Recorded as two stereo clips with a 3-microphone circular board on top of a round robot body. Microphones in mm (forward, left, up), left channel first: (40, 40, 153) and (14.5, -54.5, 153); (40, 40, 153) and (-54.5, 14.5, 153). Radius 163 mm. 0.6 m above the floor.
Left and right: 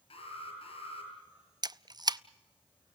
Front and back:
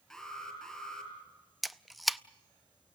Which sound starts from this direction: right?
A camera shutter, at 1.6 s.